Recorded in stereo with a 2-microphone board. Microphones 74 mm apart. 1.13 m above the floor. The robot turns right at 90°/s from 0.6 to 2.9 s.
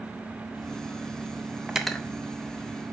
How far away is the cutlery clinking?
About 0.5 m.